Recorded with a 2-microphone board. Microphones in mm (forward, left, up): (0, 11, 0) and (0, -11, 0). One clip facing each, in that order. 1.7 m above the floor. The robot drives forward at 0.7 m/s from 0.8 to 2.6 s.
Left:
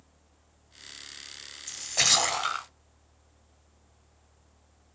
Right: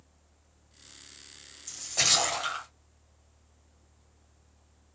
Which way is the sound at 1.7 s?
15° left (ahead or behind).